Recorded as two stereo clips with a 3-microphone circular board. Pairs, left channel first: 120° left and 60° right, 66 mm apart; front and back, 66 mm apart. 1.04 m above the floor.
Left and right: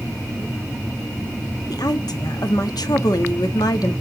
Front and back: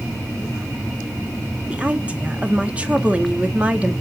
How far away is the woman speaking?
About 1.5 m.